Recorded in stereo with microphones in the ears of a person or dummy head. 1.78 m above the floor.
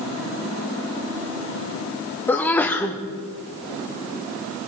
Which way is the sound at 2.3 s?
15° left (ahead or behind).